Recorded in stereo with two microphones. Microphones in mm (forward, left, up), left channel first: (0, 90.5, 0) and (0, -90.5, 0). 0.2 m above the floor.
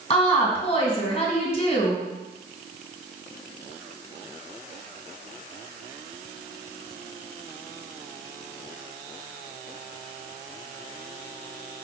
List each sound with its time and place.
0.1 s a woman speaking: 35° left (ahead or behind), 1.8 m